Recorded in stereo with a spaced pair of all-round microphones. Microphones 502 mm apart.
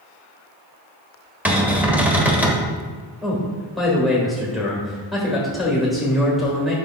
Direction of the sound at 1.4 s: 5° right (ahead or behind).